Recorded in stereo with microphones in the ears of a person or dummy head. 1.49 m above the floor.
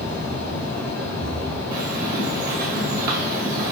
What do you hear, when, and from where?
0.0 s a fan: 70° left (ahead or behind), 1.7 m
1.7 s a bird: 50° right (ahead or behind), 0.8 m